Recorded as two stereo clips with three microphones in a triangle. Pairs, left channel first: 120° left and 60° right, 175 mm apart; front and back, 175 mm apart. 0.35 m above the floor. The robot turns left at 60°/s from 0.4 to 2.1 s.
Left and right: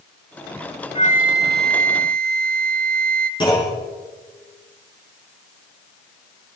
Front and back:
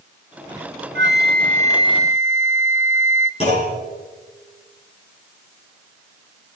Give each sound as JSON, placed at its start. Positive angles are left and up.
{"t": 0.9, "sound": "a flute", "azimuth_deg": 175, "distance_m": 0.6}
{"t": 3.4, "sound": "a clunk", "azimuth_deg": 55, "distance_m": 6.0}